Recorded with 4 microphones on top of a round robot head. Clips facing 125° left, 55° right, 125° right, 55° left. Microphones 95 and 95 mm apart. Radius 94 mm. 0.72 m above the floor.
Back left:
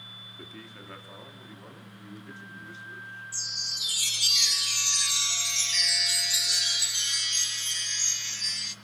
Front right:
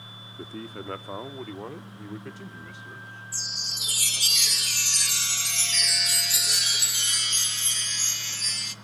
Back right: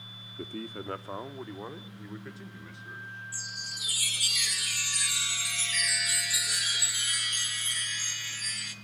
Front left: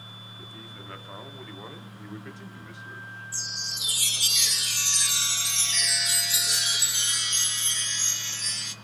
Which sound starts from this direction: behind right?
A man speaking, at 0.4 s.